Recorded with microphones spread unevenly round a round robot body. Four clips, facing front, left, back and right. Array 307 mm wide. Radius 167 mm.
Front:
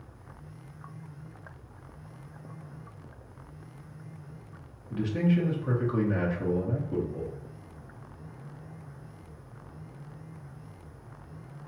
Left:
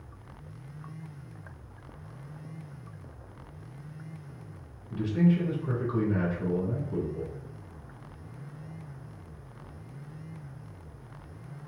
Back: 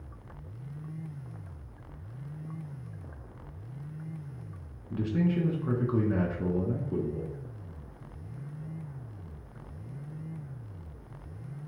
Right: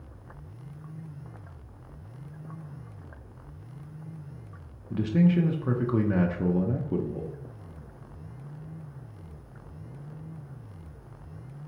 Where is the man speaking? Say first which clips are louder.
Right 2 dB, front 2 dB; 85° right, 0.9 m.